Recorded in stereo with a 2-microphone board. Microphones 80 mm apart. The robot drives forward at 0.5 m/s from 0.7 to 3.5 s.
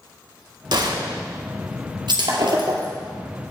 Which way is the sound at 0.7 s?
65° right (ahead or behind).